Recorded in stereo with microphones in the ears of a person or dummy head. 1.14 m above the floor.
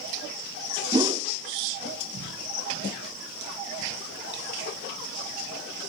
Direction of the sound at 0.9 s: 20° right (ahead or behind).